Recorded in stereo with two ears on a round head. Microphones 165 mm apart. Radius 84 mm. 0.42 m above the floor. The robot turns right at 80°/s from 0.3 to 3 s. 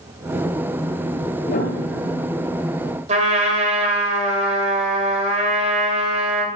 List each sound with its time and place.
1.5 s a piano: 55° left, 2.5 m; by 2.3 s 120° left, 2.5 m
3.1 s a trumpet: 40° right (ahead or behind), 2 m